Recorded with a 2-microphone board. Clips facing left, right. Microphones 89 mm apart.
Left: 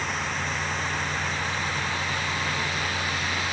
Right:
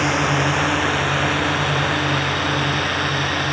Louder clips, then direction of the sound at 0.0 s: Right 11 dB; 80° right.